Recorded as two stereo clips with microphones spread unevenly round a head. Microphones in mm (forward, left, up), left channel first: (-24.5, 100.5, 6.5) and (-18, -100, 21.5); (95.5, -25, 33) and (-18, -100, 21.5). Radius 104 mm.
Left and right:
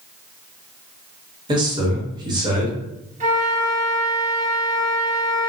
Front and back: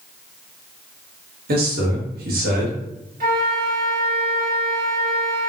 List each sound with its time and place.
1.5 s a man speaking: 155° right, 1.3 m
3.2 s a flute: 140° right, 1.3 m